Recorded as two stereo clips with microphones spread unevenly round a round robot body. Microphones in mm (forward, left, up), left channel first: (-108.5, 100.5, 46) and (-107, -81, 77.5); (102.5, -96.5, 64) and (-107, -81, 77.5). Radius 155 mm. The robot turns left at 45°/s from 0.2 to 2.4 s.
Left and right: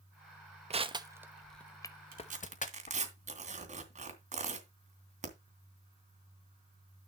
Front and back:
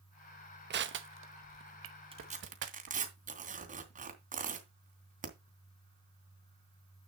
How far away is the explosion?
No explosion in this recording.